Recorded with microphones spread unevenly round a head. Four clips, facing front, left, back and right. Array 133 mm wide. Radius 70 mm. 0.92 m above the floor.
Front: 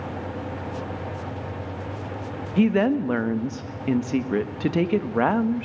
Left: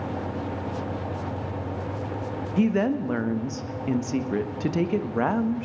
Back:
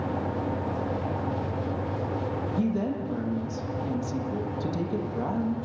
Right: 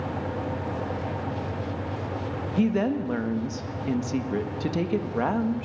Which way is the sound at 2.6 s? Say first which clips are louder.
Left 1 dB, front 10 dB; straight ahead.